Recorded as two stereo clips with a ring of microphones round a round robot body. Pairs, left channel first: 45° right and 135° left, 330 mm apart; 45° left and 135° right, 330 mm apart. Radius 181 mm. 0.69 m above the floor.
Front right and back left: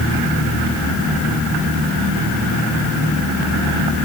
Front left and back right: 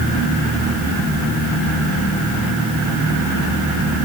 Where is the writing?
No writing in this recording.